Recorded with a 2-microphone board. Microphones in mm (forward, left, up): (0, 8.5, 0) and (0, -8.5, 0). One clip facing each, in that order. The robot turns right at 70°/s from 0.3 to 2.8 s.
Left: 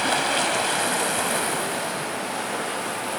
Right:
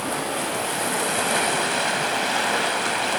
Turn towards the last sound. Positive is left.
turn(degrees=-65)